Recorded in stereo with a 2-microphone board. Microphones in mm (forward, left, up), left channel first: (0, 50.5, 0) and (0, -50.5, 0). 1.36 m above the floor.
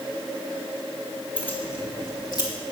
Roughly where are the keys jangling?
Centre.